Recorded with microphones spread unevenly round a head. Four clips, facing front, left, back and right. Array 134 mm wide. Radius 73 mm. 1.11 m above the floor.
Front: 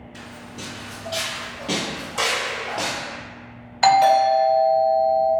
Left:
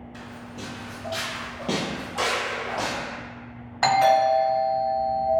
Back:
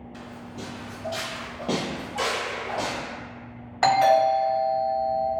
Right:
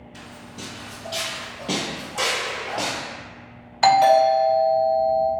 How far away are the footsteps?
About 1.7 m.